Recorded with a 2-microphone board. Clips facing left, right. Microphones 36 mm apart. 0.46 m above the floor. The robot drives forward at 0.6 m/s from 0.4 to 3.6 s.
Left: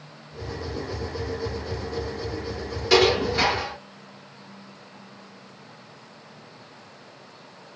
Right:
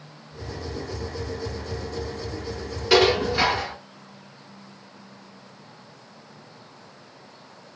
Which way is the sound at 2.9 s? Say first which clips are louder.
Right 1 dB; 10° right (ahead or behind).